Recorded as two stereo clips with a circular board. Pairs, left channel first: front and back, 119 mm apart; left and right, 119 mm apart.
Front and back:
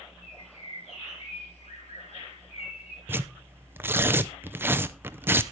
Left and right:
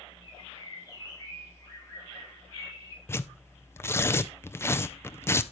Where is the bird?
30° left, 6 m.